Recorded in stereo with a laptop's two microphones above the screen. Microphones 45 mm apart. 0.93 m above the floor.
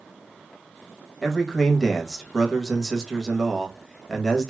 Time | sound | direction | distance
1.2 | a man speaking | 10° left (ahead or behind) | 1.1 m